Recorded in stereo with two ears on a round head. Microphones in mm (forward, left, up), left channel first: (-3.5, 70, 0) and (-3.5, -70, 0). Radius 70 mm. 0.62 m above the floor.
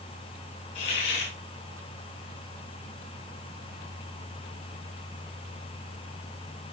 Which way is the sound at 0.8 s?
80° left.